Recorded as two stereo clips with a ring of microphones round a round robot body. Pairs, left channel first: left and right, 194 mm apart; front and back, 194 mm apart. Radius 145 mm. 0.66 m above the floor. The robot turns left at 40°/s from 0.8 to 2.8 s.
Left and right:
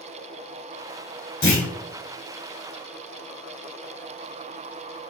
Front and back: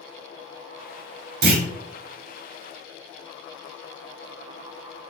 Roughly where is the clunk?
Behind left.